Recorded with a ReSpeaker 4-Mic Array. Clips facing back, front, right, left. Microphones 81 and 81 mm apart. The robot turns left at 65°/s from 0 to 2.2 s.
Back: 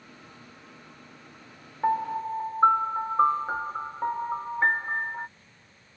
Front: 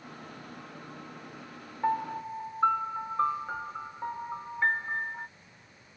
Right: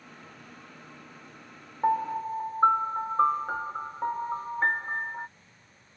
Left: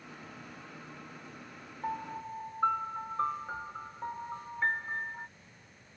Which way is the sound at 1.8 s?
105° right.